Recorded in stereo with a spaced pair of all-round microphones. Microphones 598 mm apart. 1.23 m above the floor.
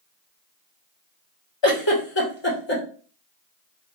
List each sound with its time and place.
1.6 s a giggle: 45° left (ahead or behind), 1.2 m